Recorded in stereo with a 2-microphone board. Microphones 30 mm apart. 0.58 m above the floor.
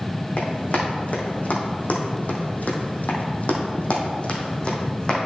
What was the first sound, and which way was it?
Running footsteps, 50° left (ahead or behind).